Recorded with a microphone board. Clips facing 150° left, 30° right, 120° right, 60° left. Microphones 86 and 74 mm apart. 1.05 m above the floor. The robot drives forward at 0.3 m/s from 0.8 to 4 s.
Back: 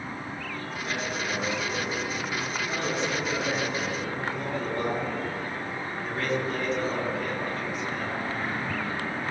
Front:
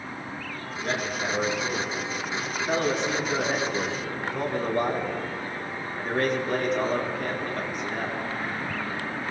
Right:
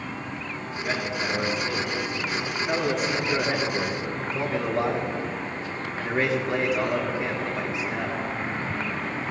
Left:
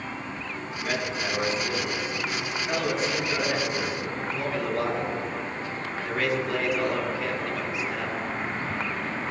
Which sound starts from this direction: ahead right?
A man speaking, at 0.8 s.